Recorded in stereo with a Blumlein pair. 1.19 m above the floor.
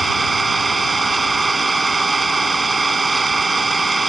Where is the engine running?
10° right.